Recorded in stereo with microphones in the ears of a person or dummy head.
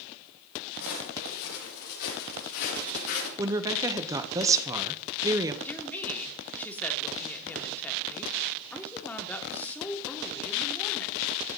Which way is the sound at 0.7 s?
70° left (ahead or behind).